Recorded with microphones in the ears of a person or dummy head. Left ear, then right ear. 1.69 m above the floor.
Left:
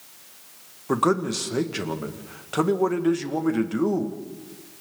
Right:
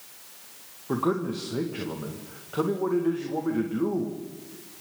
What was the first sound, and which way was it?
A man speaking, 75° left (ahead or behind).